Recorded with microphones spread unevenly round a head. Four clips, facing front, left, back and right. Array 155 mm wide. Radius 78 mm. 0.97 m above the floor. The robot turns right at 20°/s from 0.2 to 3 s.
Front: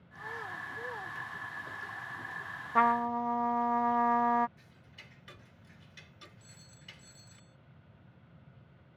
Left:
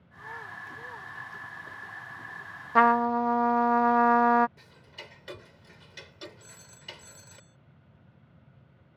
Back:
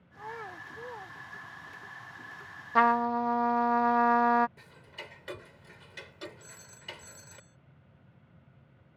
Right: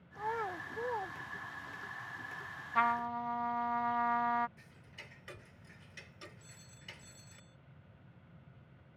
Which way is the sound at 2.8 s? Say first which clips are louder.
Left 11 dB, back 3 dB; 100° left.